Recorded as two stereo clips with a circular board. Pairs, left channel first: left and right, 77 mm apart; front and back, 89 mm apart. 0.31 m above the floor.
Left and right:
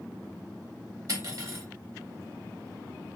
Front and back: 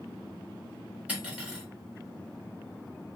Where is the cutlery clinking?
110° right, 1.0 m.